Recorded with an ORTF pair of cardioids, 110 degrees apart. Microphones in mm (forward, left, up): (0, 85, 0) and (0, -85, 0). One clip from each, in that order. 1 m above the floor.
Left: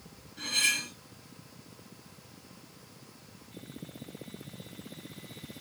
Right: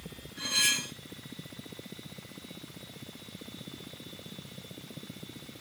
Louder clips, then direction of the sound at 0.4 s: Even; 20° right.